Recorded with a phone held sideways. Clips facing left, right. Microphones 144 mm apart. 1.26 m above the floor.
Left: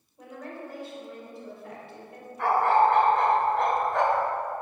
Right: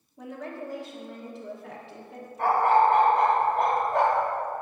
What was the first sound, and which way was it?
A woman speaking, 85° right.